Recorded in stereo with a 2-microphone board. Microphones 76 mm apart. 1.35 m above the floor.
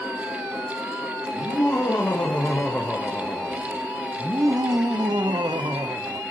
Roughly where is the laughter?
Left.